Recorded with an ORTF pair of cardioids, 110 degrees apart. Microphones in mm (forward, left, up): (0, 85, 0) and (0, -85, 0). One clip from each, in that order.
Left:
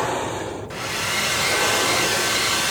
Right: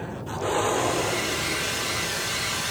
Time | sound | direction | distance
0.7 | a hair dryer | 40° left | ?